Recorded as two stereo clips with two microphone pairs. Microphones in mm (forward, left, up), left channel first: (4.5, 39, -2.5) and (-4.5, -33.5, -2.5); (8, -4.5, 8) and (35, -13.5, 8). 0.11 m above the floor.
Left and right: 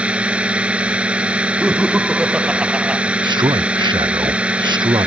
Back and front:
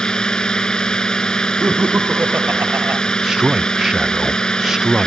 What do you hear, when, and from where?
0.0 s a drone: 160° right
1.6 s laughter: 20° right
3.2 s a man speaking: 85° right